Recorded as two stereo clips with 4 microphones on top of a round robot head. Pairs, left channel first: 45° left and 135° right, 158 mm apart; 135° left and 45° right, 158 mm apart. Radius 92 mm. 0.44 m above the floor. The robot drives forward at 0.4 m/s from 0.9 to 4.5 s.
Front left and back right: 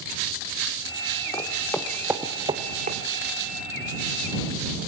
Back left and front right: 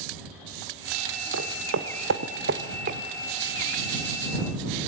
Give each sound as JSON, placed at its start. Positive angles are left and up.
{"t": 1.3, "sound": "footsteps", "azimuth_deg": -25, "distance_m": 2.0}